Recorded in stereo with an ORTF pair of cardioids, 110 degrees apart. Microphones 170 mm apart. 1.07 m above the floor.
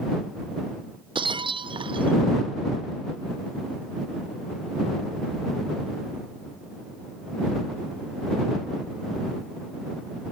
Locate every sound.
1.1 s breaking glass: 30° right